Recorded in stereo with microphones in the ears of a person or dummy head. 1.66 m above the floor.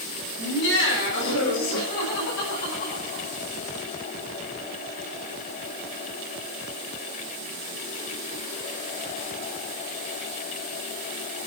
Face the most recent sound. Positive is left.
turn(degrees=60)  # may be behind; listen again after turning